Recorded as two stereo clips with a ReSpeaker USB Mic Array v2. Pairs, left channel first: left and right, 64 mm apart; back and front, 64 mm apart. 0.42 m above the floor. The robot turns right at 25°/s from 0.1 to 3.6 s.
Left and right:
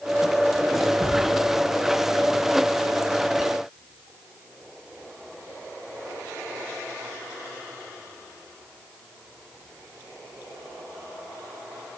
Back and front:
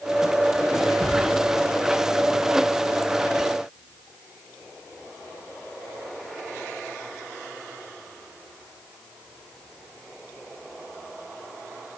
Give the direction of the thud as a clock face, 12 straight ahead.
3 o'clock.